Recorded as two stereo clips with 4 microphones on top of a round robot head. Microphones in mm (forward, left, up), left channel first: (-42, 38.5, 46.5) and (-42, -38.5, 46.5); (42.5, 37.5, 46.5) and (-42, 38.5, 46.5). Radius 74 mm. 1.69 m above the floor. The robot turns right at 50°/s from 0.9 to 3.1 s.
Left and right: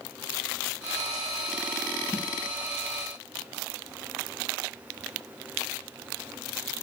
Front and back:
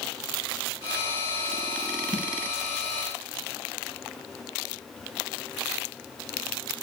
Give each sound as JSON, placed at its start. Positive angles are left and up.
{"t": 2.1, "sound": "a snare drum", "azimuth_deg": 130, "distance_m": 0.6}